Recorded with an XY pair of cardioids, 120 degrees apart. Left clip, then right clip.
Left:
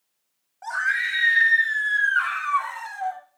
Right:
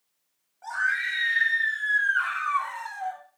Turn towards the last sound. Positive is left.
turn(degrees=20)